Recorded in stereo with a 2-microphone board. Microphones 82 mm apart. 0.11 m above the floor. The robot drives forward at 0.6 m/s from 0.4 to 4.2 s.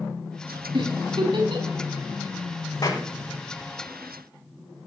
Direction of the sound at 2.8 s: 50° left (ahead or behind).